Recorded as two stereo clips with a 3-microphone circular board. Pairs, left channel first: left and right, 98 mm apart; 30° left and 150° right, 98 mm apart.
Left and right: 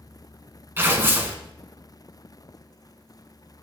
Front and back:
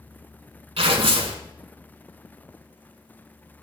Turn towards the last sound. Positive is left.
turn(degrees=-155)